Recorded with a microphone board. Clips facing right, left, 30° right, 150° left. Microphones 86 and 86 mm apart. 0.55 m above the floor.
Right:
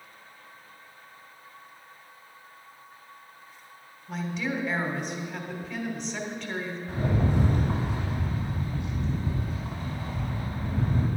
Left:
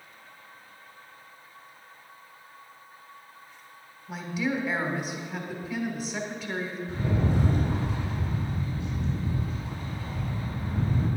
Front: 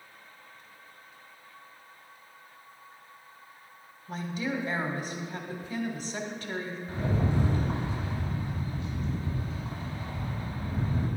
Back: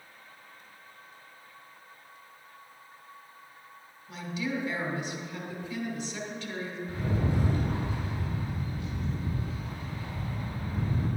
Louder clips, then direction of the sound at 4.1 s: Left 1 dB, front 1 dB; 5° left.